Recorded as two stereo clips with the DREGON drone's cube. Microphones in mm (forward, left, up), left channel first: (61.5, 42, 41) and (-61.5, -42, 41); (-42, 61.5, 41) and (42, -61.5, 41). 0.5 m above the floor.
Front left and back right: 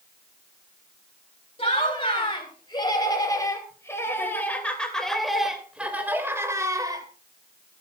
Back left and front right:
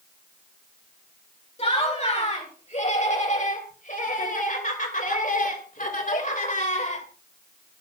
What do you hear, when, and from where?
1.6 s laughter: 85° left, 4 m; by 7.1 s 155° left, 2.5 m